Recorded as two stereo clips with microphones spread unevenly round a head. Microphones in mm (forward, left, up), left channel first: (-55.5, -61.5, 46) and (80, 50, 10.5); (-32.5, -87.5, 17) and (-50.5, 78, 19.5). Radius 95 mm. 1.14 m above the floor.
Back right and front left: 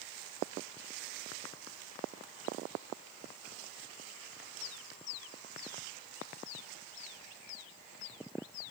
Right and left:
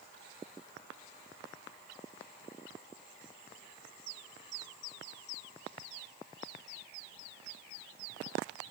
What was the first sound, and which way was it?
Only background noise.